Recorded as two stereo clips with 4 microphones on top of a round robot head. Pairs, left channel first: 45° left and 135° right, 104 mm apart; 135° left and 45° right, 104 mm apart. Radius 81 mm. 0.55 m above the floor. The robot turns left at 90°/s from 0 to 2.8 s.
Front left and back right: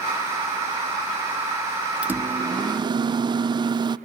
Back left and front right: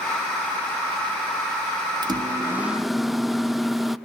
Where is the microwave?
65° right, 0.6 m; by 4.0 s 135° right, 0.6 m.